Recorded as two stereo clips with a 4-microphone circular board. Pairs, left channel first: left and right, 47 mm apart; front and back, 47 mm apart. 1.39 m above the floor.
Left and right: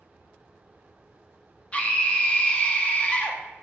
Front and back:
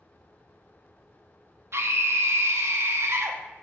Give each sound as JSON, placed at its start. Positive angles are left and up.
{"t": 1.7, "sound": "a scream", "azimuth_deg": 150, "distance_m": 0.6}